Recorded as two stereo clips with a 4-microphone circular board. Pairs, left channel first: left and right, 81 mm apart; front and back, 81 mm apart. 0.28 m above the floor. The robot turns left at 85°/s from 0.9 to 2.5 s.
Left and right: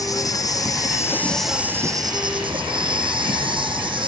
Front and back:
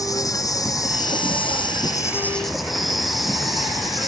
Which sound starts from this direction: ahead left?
An insect, at 0.0 s.